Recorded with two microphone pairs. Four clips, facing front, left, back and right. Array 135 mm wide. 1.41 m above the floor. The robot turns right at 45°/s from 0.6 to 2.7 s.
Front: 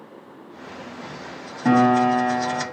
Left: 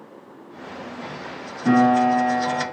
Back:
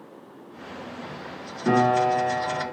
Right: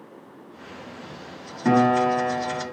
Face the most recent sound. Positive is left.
turn(degrees=35)